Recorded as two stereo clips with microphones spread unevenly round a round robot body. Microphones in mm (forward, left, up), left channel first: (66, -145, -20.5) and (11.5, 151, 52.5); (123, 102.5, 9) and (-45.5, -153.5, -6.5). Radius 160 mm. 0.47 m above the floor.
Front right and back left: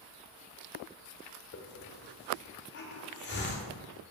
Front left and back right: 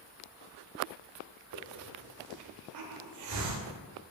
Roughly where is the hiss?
Behind right.